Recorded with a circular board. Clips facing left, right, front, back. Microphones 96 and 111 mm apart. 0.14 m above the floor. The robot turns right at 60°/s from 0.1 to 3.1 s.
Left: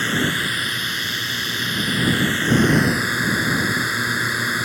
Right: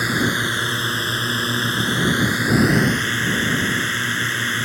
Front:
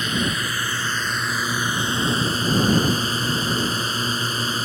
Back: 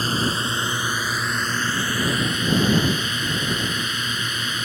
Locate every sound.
0.0 s a drone: 160° right; by 4.7 s 20° left